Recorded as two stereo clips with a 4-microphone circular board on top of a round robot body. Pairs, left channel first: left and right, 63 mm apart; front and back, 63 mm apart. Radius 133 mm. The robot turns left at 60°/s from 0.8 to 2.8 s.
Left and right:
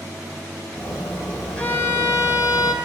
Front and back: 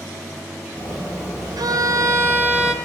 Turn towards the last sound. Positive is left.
turn(degrees=90)